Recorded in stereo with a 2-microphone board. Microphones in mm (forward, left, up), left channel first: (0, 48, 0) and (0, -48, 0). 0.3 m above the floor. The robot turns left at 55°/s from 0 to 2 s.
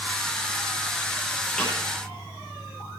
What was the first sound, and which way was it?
A snare drum, 5° left (ahead or behind).